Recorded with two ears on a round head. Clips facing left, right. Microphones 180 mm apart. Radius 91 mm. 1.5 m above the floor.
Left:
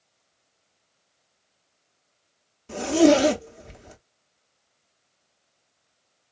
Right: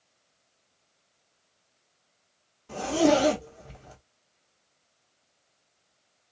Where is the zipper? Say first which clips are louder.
Left 5 dB; 25° left (ahead or behind), 1.1 m.